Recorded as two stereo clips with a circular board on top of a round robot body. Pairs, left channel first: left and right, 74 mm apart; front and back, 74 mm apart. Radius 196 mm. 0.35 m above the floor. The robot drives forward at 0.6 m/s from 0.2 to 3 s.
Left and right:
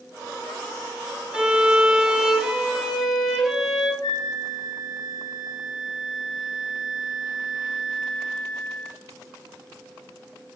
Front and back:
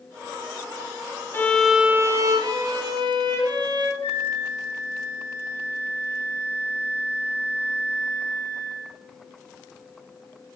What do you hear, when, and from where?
1.3 s a violin: 25° right, 0.6 m; by 3.9 s 175° right, 1.0 m
4.0 s a flute: 60° left, 0.9 m